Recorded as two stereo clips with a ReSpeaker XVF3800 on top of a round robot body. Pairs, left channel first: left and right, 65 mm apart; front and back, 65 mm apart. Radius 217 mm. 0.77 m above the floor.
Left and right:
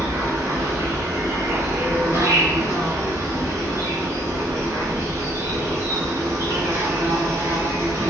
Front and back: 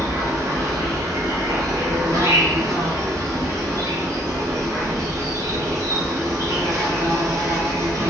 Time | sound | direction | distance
0.0 | an insect | 140° right | 1.3 m